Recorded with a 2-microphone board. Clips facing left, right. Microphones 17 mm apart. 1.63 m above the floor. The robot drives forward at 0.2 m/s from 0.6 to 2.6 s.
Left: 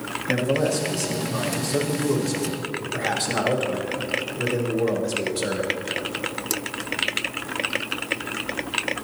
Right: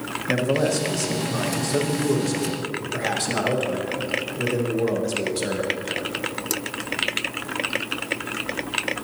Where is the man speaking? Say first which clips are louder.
Right 1 dB; 15° right (ahead or behind), 1.2 m; by 5.7 s 10° right (ahead or behind), 1.5 m.